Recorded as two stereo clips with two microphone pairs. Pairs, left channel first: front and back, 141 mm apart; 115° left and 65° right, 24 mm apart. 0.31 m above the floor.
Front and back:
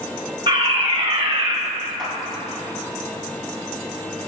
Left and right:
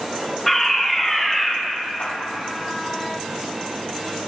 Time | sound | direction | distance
0.5 | a fire alarm | 175° right | 2 m
2.0 | a clap | 90° left | 5.5 m